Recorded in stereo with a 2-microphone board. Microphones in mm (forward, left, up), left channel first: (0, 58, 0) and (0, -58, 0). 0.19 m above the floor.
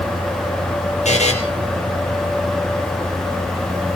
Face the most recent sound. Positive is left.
turn(degrees=80)